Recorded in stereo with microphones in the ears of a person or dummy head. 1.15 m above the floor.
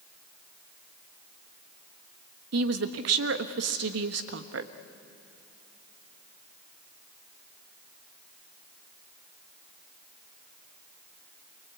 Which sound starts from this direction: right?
A woman speaking, at 2.5 s.